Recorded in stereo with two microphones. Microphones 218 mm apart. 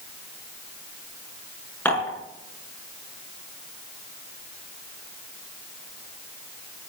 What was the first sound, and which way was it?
Dishes clattering, 10° left (ahead or behind).